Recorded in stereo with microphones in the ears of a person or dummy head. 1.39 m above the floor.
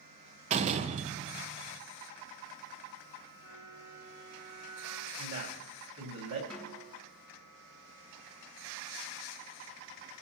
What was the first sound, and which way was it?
A door slam, 40° right (ahead or behind).